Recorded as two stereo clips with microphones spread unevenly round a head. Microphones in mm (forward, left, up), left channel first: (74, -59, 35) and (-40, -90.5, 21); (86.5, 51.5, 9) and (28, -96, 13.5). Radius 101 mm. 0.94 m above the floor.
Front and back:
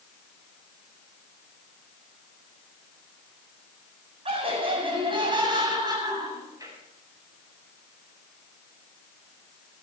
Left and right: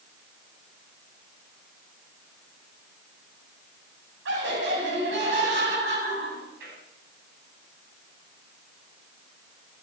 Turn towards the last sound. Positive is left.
turn(degrees=-105)